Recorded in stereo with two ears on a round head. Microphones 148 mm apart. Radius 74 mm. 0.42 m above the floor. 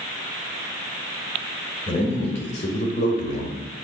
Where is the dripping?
I don't hear dripping.